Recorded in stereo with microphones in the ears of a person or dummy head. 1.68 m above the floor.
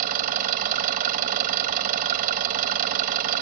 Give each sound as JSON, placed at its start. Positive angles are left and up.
{"t": 0.0, "sound": "an engine running", "side_deg": -40}